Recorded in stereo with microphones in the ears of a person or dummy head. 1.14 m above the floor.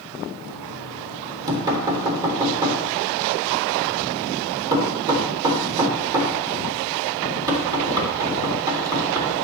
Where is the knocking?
20° right (ahead or behind), 3 m.